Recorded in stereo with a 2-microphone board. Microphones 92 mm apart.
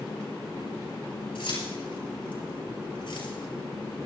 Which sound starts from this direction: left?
Keys jangling, at 1.4 s.